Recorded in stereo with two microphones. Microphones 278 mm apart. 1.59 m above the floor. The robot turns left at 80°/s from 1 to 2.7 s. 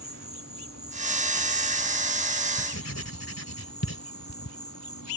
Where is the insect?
130° right; by 5.2 s 95° left.